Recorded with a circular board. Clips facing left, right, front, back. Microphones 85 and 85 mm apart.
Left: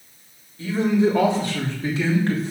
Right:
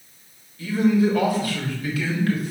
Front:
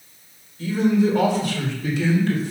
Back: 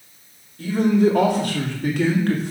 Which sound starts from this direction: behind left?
A man speaking, at 0.6 s.